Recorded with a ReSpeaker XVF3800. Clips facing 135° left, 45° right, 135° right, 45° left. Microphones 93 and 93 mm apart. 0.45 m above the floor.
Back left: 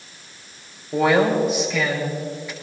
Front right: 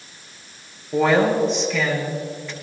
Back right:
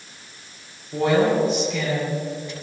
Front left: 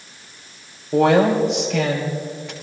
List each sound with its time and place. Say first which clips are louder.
0.9 s a woman speaking: even, front left 4 dB; 55° left, 6 m